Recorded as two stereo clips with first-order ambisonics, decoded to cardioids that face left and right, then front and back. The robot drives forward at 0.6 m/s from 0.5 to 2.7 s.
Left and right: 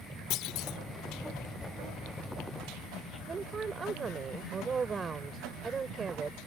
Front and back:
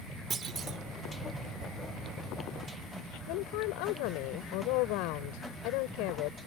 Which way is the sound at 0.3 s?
115° left.